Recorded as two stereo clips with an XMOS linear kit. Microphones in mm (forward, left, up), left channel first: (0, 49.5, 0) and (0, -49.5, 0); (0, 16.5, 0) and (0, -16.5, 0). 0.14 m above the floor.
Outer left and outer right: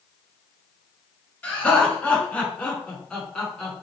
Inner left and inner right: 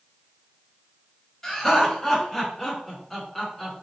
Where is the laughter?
15° left (ahead or behind), 1.7 m; by 3.8 s 5° left (ahead or behind), 1.3 m.